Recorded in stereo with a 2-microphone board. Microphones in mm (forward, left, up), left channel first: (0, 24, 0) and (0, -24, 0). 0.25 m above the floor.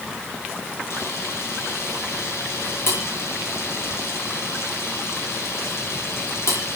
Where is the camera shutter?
60° left (ahead or behind), 8 m.